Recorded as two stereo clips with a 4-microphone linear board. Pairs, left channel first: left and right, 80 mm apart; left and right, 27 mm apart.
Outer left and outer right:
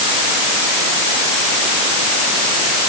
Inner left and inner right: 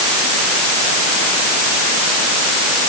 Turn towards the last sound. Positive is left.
No sound to turn to.